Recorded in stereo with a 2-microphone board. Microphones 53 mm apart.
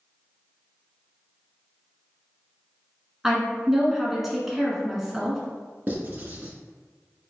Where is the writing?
35° right (ahead or behind), 0.8 m.